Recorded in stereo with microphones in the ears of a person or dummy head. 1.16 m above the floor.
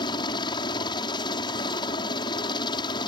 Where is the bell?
I don't hear a bell.